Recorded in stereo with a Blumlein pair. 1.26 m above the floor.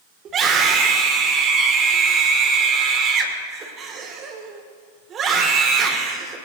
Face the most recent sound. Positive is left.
turn(degrees=-25)